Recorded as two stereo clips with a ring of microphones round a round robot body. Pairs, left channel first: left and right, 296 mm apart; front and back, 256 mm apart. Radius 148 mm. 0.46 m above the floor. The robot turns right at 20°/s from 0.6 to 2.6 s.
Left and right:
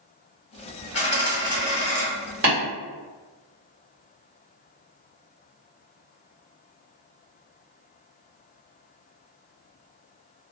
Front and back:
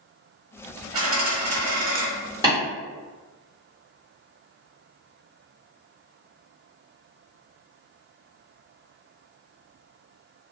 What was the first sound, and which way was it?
A dropped coin, 145° left.